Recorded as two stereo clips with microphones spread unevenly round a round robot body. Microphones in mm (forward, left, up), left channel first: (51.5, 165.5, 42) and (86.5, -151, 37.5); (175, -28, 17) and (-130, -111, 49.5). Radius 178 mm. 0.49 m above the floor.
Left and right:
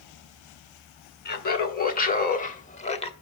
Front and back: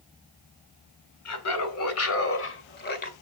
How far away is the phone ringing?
I don't hear a phone ringing.